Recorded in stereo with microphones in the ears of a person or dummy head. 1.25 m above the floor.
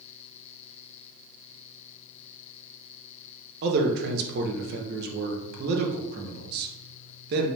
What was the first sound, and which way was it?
A man speaking, 60° right (ahead or behind).